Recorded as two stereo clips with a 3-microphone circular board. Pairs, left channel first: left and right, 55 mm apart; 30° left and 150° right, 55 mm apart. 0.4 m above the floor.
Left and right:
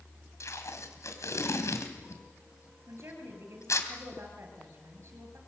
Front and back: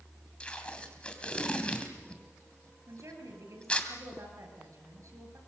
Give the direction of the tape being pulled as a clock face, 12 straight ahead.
9 o'clock.